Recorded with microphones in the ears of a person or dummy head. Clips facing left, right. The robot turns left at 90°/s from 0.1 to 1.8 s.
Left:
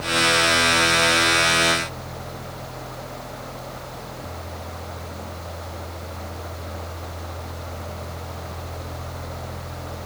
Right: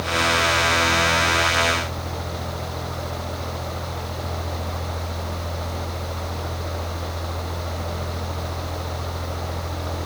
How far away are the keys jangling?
I don't hear keys jangling.